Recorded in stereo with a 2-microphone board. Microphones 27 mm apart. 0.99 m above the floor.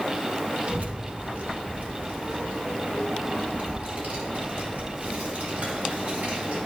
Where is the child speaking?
50° right (ahead or behind), 0.9 m; by 6.6 s 90° right, 4.5 m.